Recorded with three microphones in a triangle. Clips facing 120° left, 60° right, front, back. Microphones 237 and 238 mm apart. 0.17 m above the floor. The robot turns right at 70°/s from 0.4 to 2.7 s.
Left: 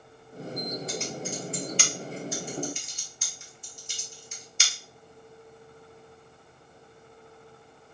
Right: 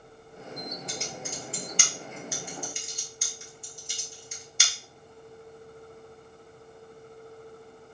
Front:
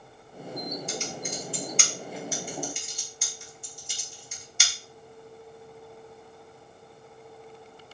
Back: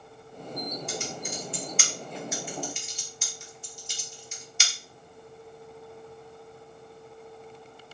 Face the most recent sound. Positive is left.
turn(degrees=-30)